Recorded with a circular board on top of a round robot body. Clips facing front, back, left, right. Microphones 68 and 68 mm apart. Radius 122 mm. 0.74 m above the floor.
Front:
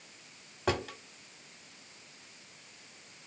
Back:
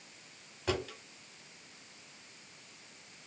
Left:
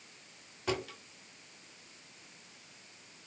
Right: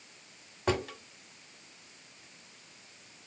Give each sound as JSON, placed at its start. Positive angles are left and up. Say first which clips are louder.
{"t": 0.7, "sound": "a drawer", "louder": "front 3 dB, right 5 dB", "azimuth_deg": -35, "distance_m": 1.6}